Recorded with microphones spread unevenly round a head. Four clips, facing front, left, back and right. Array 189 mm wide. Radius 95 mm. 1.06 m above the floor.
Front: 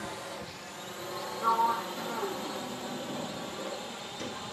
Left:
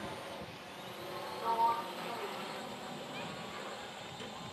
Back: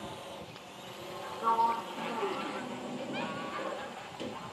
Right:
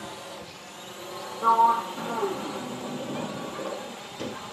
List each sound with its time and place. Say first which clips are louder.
0.0 s a drone: right 4 dB, front 3 dB; 50° right; by 4.5 s 55° right
1.4 s a sliding door: right 12 dB, front 1 dB; 95° right